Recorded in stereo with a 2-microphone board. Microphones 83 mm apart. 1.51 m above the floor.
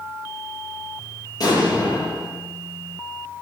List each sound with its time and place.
1.4 s an explosion: 55° left (ahead or behind), 9.5 m